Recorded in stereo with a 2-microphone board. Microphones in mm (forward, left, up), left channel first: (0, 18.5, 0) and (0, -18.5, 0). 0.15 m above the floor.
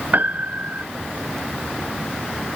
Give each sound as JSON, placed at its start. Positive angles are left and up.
{"t": 0.1, "sound": "a piano", "side_deg": -50}